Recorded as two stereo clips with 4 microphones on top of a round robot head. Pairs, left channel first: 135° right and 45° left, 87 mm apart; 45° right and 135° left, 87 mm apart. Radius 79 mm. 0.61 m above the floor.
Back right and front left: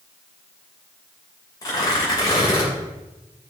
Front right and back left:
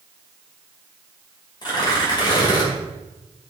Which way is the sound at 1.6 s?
85° right.